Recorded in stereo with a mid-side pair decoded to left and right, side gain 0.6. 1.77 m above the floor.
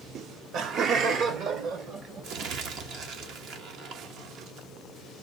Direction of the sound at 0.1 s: 55° right.